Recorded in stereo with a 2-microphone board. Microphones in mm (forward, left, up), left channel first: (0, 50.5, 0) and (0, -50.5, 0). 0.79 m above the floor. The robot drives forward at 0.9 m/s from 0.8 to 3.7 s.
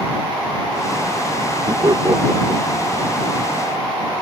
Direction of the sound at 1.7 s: 50° right (ahead or behind).